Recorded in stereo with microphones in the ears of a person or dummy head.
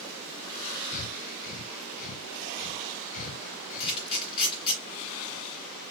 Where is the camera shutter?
25° left (ahead or behind), 3.5 m.